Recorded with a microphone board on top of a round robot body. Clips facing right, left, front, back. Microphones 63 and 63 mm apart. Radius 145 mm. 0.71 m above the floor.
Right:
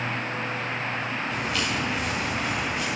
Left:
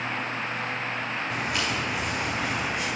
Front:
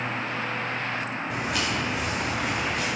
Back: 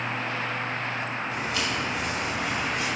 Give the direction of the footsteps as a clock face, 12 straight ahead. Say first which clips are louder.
Even, front 3 dB; 11 o'clock.